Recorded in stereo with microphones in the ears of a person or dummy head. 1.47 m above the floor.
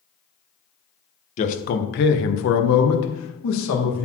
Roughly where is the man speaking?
Left.